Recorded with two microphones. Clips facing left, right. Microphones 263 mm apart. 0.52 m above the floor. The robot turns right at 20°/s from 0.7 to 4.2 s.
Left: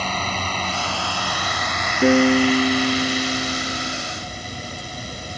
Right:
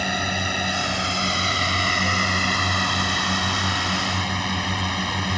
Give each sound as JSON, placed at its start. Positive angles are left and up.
{"t": 0.0, "sound": "a drone", "azimuth_deg": -165}
{"t": 2.0, "sound": "a piano", "azimuth_deg": 95}